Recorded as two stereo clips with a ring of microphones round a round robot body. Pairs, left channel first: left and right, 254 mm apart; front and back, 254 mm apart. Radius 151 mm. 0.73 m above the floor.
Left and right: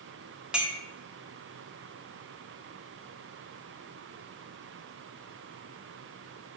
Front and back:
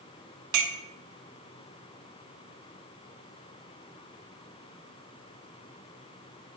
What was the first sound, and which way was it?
A clink, 175° right.